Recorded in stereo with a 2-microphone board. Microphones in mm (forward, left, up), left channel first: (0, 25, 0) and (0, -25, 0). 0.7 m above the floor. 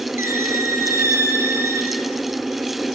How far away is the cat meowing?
I don't hear a cat meowing.